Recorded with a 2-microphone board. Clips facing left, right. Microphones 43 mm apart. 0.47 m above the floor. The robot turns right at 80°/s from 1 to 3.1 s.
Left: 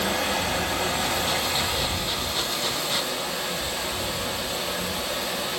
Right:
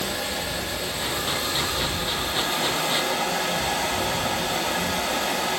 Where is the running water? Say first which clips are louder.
Left 3 dB; 105° left, 1.5 m; by 5.6 s 85° right, 1.5 m.